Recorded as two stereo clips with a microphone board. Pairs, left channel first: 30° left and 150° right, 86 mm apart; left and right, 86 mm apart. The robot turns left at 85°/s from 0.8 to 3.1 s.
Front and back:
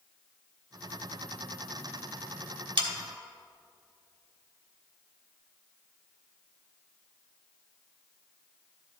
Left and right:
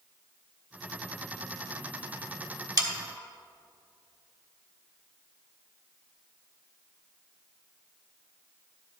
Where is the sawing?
130° right, 2.5 m; by 2.9 s 140° right, 2.5 m.